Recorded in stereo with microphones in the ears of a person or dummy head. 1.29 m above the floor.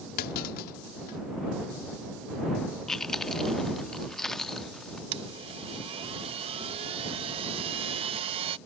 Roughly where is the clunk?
Left.